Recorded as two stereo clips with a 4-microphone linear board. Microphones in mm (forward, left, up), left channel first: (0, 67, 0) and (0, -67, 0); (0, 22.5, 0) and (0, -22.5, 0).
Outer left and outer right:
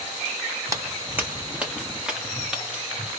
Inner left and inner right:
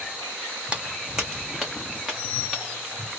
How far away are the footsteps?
About 0.6 m.